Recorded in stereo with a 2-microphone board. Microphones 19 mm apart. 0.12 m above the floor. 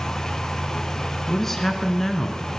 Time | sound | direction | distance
1.3 | a man speaking | 15° left (ahead or behind) | 1.4 m